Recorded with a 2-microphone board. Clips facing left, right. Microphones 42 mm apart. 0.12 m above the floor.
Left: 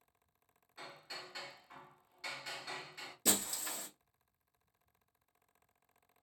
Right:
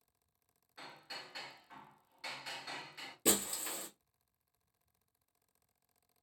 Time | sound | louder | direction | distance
0.8 | hammering | even | 5° right (ahead or behind) | 1.5 m
3.2 | breaking glass | right 2 dB | 25° right (ahead or behind) | 1.5 m